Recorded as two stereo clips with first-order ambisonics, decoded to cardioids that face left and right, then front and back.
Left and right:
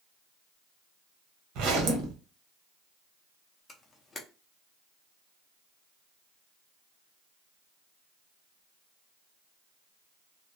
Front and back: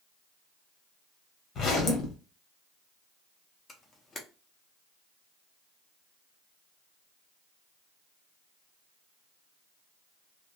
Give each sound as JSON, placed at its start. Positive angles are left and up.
{"t": 1.6, "sound": "a zipper", "azimuth_deg": -60, "distance_m": 0.9}
{"t": 3.7, "sound": "a camera shutter", "azimuth_deg": 40, "distance_m": 0.6}